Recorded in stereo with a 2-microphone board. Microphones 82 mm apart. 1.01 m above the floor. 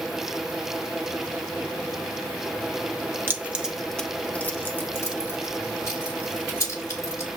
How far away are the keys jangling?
About 0.6 m.